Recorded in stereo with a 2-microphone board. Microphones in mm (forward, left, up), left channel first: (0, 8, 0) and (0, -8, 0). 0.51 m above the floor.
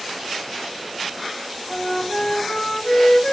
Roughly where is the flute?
Left.